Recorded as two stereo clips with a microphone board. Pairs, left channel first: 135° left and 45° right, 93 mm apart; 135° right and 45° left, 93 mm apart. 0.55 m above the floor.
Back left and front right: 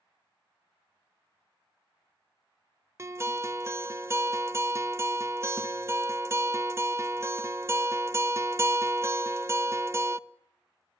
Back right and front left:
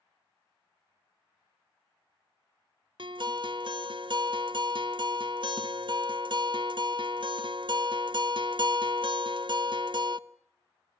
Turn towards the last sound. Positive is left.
turn(degrees=15)